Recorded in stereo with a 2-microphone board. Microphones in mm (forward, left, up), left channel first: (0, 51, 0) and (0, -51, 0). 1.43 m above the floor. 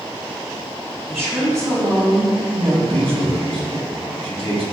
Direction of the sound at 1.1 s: 20° right (ahead or behind).